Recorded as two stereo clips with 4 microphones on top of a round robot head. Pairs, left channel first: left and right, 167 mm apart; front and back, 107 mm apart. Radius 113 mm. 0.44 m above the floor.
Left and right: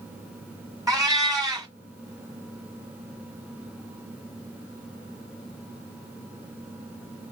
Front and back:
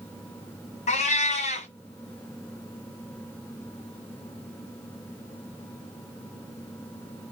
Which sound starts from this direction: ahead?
A cat meowing, at 0.9 s.